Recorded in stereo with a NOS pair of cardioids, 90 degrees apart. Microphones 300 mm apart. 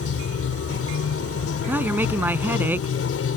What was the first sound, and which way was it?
Running water, 50° left.